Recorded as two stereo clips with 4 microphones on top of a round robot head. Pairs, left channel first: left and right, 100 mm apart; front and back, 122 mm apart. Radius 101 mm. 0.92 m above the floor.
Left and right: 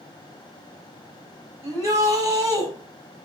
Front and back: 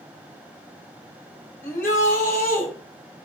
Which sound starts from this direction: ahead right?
A shout, at 1.6 s.